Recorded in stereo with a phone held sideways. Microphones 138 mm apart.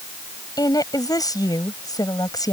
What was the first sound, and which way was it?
A woman speaking, 25° left (ahead or behind).